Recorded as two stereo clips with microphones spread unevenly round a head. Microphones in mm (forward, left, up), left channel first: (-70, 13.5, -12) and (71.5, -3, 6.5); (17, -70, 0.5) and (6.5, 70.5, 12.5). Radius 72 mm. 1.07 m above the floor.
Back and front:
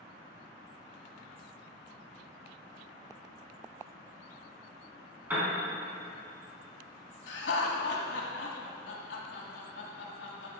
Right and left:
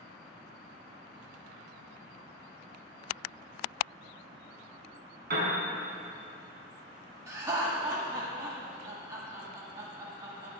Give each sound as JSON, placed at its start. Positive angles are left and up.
{"t": 5.3, "sound": "a piano", "azimuth_deg": 70, "distance_m": 4.0}
{"t": 7.3, "sound": "laughter", "azimuth_deg": 160, "distance_m": 1.7}